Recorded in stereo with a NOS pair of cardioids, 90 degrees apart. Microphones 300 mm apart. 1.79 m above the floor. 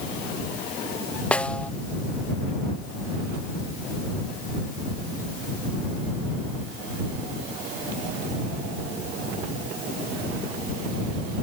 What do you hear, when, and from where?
1.3 s a snare drum: 5° left